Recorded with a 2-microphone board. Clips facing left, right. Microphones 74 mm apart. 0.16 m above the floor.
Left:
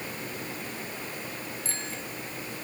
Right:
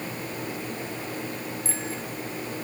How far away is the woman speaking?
No woman speaking in this recording.